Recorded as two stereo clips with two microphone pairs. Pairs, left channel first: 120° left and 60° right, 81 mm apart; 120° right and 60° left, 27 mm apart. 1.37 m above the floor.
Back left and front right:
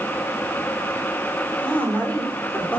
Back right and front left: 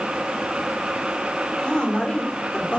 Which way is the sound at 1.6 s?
175° right.